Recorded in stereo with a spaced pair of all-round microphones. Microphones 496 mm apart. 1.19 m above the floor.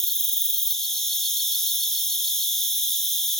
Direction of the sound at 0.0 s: Centre (ahead or behind).